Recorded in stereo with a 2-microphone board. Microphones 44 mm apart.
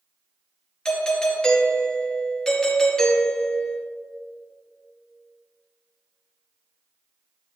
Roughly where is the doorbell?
Centre.